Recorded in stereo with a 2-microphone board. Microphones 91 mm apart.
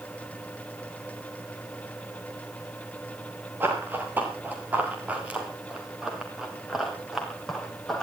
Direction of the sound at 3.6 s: 25° right (ahead or behind).